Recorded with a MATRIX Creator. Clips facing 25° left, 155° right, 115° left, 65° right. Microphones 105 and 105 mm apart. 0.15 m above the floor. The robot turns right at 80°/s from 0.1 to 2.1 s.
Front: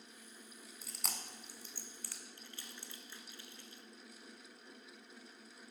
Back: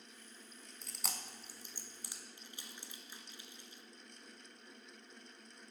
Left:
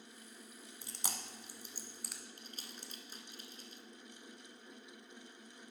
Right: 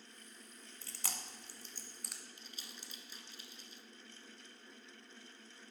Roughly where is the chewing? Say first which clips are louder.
Back 1 dB, left 2 dB; left.